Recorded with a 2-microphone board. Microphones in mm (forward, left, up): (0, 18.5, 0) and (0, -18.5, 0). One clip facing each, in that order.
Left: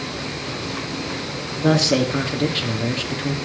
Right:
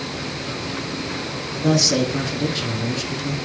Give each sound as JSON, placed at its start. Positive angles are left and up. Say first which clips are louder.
{"t": 1.6, "sound": "a man speaking", "louder": "left 1 dB", "side_deg": 30, "distance_m": 1.8}